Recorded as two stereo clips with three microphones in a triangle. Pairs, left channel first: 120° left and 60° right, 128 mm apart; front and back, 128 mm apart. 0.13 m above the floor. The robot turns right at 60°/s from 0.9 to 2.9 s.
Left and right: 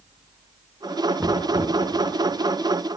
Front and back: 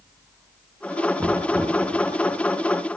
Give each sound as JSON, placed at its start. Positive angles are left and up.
{"t": 1.2, "sound": "knocking", "azimuth_deg": -120, "distance_m": 1.2}